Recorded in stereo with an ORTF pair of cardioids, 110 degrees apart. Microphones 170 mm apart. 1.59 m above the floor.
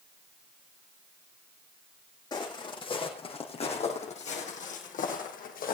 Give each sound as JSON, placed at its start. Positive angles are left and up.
{"t": 2.3, "sound": "footsteps", "azimuth_deg": 25, "distance_m": 6.0}